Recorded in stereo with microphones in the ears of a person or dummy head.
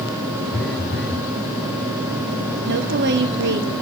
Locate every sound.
0.5 s a phone buzzing: 10° left (ahead or behind), 0.5 m
2.7 s a woman speaking: 55° right (ahead or behind), 1.0 m